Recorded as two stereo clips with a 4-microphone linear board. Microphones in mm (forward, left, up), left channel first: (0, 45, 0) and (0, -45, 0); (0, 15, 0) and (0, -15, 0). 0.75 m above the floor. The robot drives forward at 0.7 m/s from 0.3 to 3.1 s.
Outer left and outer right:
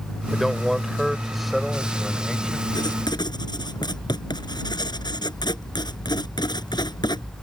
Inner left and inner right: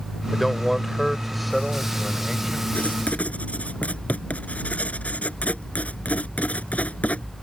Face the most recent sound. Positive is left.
turn(degrees=55)  # may be behind; listen again after turning